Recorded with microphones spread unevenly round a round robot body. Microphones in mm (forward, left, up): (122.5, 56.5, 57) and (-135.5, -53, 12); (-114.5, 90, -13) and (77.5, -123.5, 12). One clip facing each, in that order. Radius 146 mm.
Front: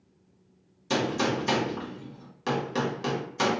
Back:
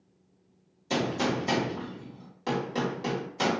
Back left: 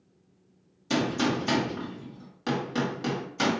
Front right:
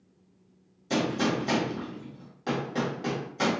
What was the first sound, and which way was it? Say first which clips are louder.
A gunshot: front 1 dB, back left 1 dB; 85° left.